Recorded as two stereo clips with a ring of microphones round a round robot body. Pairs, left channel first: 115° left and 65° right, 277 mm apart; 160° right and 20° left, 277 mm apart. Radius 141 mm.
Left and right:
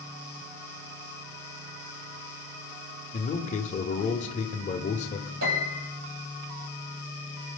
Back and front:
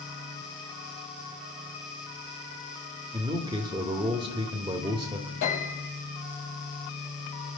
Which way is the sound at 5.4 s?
110° right.